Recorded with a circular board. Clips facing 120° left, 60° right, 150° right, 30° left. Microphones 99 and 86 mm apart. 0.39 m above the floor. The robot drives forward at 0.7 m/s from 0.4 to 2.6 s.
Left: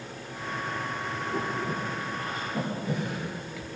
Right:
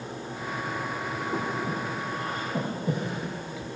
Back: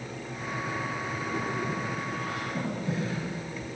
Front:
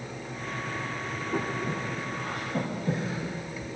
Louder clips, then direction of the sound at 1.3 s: Even, front 2 dB; 15° right.